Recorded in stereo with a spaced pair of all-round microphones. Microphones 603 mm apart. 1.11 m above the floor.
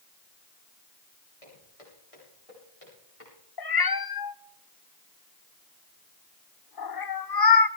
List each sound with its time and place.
1.4 s footsteps: 65° left (ahead or behind), 7.5 m; by 3.4 s 60° left (ahead or behind), 9 m
3.6 s a cat meowing: 40° left (ahead or behind), 0.6 m